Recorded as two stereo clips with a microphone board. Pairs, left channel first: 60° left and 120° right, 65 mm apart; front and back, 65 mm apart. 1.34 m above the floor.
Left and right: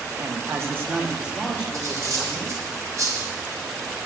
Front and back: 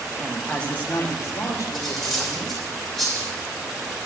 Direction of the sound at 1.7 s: 85° right.